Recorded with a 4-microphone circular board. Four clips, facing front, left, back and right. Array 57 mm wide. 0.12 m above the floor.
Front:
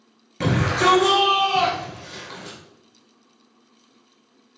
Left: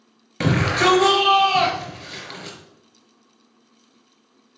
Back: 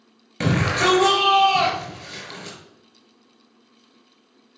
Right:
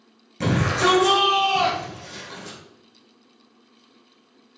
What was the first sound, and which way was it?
A shout, 110° left.